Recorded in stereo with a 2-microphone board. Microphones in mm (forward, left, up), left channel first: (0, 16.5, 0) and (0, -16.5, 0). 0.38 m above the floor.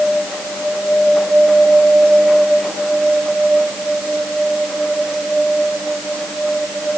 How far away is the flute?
I don't hear a flute.